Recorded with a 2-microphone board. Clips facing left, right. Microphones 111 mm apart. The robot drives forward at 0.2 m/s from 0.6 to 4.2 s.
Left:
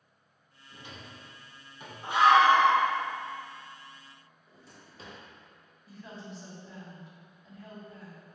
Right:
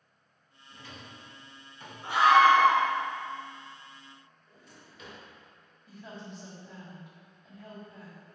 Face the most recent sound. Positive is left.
turn(degrees=0)  # may be behind; listen again after turning